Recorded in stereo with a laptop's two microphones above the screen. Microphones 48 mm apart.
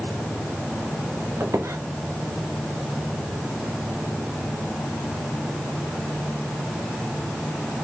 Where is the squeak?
70° right (ahead or behind), 0.8 m.